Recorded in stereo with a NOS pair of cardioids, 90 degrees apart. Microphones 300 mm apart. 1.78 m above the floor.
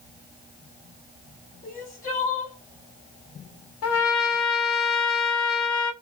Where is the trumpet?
55° left, 0.9 m.